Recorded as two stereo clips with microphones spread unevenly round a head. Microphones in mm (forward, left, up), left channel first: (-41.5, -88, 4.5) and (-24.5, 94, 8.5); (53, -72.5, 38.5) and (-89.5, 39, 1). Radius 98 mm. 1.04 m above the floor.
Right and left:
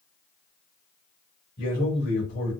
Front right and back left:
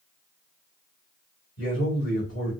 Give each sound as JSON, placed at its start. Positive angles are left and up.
{"t": 1.6, "sound": "a man speaking", "azimuth_deg": -55, "distance_m": 3.0}